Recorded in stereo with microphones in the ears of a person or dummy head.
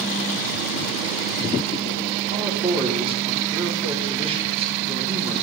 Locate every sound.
2.3 s a man speaking: 30° right (ahead or behind), 4 m